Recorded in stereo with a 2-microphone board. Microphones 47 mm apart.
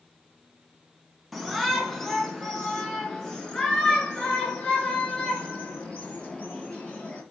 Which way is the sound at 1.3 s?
Centre (ahead or behind).